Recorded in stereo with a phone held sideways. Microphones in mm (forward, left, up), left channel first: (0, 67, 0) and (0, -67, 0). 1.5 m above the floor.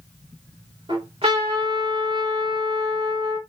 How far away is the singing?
I don't hear singing.